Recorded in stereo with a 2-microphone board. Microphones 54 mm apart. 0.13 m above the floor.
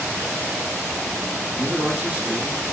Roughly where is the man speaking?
Right.